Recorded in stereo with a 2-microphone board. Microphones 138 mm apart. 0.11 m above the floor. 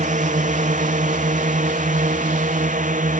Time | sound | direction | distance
0.0 | a drone | 65° right (ahead or behind) | ?